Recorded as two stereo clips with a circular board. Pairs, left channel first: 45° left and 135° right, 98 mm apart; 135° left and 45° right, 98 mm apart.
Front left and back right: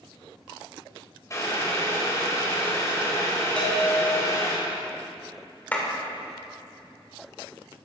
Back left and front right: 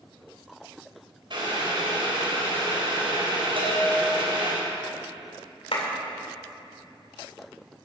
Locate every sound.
1.3 s boiling: 10° right, 3 m
3.6 s a bell: 30° right, 3.5 m
5.7 s a clap: 120° left, 2.5 m